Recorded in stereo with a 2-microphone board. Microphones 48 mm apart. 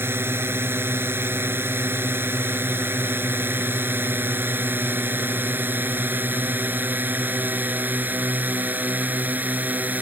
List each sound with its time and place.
0.0 s a drone: 55° right (ahead or behind); by 10.0 s 35° right (ahead or behind)